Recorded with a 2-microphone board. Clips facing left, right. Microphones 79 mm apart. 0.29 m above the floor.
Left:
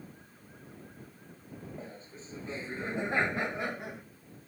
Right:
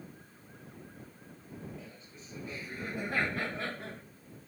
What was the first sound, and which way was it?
Laughter, 35° left (ahead or behind).